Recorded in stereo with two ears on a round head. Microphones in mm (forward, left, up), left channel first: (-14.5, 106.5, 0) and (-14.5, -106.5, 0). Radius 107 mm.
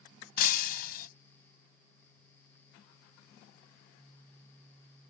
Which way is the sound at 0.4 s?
40° left (ahead or behind).